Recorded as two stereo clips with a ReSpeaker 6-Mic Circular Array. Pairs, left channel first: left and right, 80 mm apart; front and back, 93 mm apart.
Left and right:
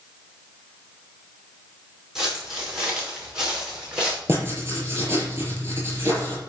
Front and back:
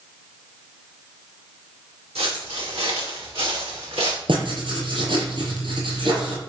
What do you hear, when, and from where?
2.1 s footsteps: 175° right, 5 m; by 4.2 s 170° right, 4 m
4.3 s writing: 150° right, 6.5 m